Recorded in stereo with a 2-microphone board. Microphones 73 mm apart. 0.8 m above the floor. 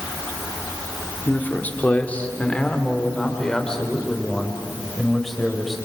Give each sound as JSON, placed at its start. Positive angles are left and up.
{"t": 1.2, "sound": "a man speaking", "side_deg": 25, "distance_m": 2.0}